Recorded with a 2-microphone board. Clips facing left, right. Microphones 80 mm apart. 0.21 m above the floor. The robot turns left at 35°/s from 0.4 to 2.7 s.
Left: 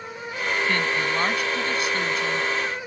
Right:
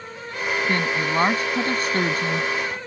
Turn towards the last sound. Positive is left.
turn(degrees=-95)